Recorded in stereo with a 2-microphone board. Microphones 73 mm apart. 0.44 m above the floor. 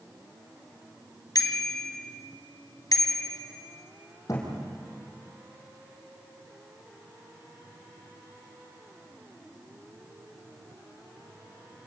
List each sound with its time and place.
1.4 s a bicycle bell: 60° left (ahead or behind), 2 m
4.3 s a thud: 50° left (ahead or behind), 6 m